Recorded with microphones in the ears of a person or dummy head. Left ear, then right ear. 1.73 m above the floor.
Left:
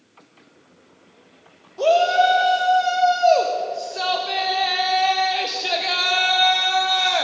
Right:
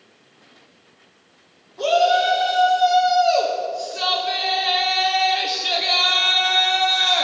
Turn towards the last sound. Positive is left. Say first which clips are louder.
# left 1 dB
turn(degrees=5)  # may be behind; listen again after turning